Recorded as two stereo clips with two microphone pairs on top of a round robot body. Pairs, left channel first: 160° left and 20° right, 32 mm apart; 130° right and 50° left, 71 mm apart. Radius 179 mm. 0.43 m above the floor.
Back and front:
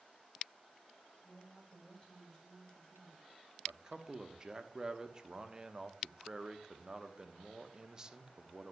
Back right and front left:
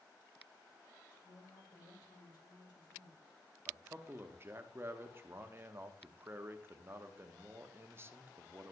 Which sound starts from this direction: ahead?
A man speaking, at 3.7 s.